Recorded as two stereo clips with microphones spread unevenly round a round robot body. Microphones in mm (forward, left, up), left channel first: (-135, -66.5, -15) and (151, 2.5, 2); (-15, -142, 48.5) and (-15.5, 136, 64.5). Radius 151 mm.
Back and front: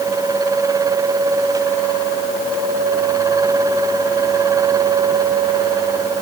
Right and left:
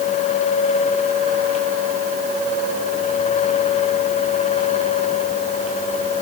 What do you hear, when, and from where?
Only background noise.